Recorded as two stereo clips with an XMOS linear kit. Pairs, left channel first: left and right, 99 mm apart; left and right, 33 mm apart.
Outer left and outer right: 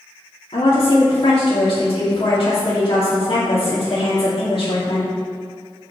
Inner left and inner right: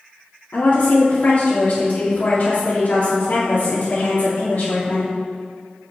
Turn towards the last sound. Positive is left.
turn(degrees=60)  # may be behind; listen again after turning